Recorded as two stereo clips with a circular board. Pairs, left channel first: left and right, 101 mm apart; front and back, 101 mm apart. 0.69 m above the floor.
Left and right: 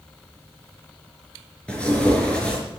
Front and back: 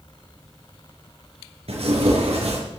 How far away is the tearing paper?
About 5 m.